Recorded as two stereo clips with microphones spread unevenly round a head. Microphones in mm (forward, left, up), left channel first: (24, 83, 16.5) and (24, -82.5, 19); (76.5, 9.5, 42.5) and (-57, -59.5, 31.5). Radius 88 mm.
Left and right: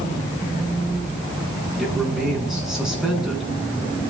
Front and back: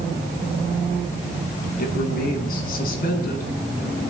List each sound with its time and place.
1.8 s a man speaking: 5° right, 8.5 m